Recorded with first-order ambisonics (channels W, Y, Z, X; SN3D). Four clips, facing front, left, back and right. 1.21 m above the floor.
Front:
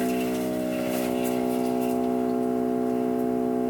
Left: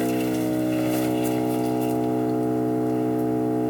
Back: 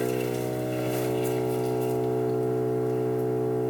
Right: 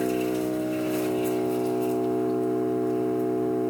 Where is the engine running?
90° left, 1.3 m.